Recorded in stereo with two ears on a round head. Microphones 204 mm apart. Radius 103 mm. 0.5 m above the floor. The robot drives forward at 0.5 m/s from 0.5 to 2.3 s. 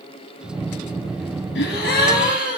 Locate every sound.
1.6 s a gasp: 50° left (ahead or behind), 1.1 m; by 2.6 s 40° left (ahead or behind), 1.3 m